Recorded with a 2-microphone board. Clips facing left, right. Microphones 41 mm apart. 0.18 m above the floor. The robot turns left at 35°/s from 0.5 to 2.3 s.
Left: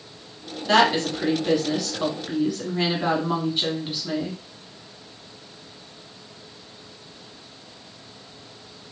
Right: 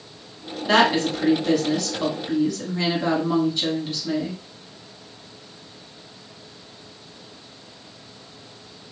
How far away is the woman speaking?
About 1.6 m.